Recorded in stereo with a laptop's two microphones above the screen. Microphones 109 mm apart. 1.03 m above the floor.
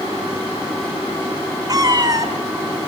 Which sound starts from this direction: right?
A cat meowing, at 1.7 s.